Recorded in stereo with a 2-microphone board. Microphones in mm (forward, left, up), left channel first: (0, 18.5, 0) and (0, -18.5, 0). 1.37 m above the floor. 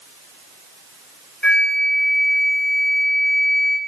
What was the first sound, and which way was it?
A flute, 30° left (ahead or behind).